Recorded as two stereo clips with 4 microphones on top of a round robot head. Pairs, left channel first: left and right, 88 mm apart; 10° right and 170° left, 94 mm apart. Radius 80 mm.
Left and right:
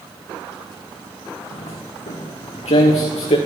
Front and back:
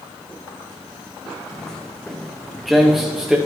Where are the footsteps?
70° left, 4 m; by 3.4 s 90° left, 4 m.